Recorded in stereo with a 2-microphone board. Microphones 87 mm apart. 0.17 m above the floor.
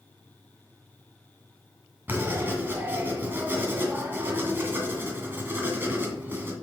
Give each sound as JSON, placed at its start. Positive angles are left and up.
{"t": 2.1, "sound": "writing", "side_deg": -25, "distance_m": 1.8}